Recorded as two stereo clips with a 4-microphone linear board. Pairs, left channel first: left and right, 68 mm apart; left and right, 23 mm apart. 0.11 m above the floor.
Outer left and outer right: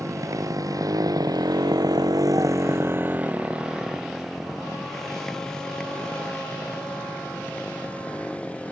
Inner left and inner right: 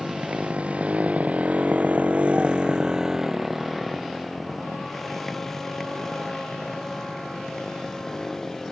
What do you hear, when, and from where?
0.0 s a motorcycle: 60° right (ahead or behind); by 8.7 s 20° left (ahead or behind)